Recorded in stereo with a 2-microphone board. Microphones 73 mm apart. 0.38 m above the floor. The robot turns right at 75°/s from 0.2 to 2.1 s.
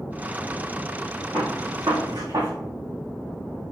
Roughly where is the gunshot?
Right.